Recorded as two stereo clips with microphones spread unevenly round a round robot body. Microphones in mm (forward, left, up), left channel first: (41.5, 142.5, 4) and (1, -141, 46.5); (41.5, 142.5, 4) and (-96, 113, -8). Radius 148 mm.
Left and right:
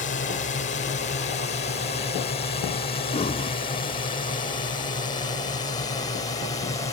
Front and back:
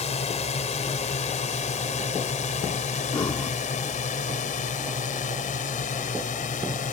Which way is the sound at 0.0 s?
35° left.